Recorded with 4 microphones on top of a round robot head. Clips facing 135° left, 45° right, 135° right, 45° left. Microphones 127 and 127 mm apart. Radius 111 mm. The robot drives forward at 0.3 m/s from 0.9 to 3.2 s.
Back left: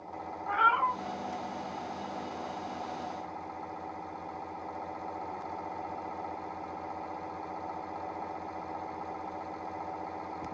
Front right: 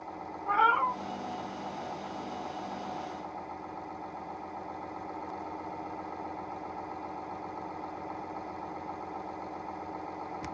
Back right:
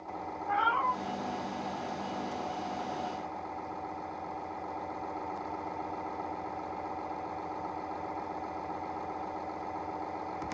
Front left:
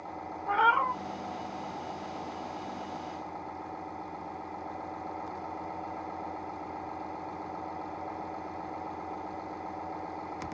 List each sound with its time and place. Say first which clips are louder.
0.5 s a cat meowing: front right 2 dB, front left 3 dB; 10° left, 0.7 m